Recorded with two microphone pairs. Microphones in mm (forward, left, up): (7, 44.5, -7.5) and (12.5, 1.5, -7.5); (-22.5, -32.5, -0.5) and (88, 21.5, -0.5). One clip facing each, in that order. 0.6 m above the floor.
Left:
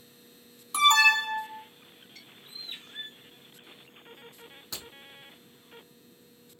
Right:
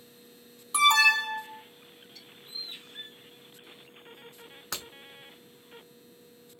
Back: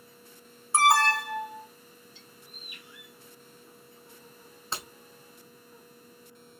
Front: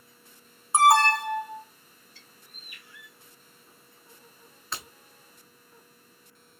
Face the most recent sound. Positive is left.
turn(degrees=-90)